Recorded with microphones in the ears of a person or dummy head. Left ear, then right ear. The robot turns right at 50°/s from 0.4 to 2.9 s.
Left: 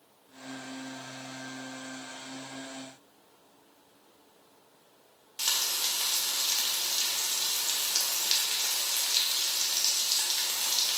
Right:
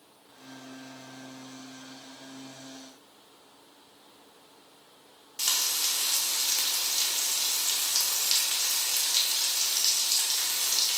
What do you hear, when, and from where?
5.4 s frying: centre (ahead or behind), 0.6 m